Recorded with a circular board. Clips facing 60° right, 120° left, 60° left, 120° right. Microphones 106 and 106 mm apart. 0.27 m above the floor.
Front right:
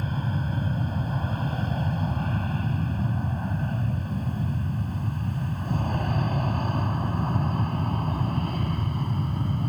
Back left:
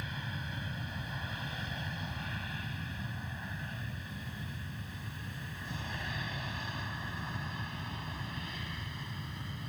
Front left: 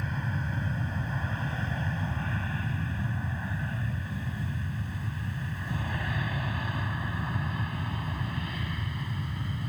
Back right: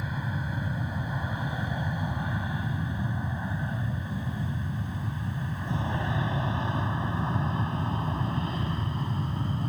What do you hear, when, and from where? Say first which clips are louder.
0.0 s an aircraft: front right 12 dB, back right 1 dB; 40° right; by 9.7 s 70° right